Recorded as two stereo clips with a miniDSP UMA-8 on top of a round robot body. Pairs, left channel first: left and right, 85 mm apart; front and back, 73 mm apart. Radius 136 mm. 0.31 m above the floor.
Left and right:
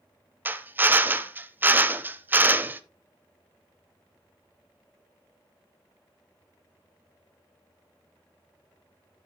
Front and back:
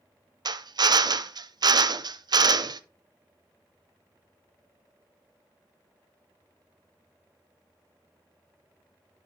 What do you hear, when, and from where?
0.5 s a drill: 155° right, 0.7 m